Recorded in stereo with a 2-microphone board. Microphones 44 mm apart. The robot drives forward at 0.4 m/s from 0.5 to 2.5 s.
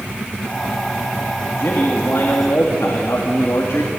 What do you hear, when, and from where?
1.6 s a man speaking: 80° left, 3 m; by 3.9 s 75° left (ahead or behind), 3 m